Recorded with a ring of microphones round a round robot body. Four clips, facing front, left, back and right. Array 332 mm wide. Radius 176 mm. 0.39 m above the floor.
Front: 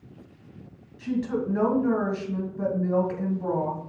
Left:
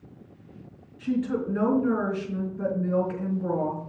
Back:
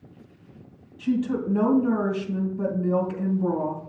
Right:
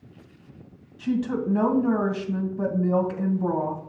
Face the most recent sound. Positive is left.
turn(degrees=-85)